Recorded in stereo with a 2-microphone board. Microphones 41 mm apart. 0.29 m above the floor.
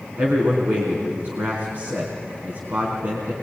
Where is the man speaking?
50° right (ahead or behind), 4 m.